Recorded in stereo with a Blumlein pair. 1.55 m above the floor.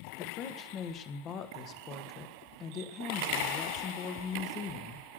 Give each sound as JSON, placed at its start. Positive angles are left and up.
{"t": 0.2, "sound": "a woman speaking", "azimuth_deg": 30, "distance_m": 1.5}